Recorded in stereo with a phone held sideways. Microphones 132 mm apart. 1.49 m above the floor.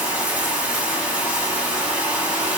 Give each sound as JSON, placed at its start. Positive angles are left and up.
{"t": 0.0, "sound": "running water", "side_deg": -10, "distance_m": 1.3}